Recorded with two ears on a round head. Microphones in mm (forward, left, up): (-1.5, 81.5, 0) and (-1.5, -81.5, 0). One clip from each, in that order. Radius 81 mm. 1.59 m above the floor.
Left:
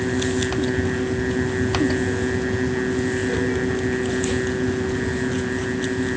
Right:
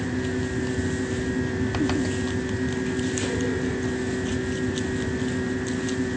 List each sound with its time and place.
Only background noise.